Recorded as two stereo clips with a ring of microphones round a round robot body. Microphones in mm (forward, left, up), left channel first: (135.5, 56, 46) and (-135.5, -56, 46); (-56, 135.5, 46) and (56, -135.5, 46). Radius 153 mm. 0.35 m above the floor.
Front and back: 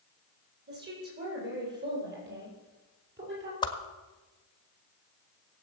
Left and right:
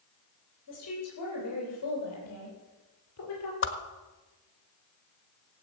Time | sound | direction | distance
0.7 | a woman speaking | 145° left | 9.5 m
3.6 | a whoosh | 90° left | 1.4 m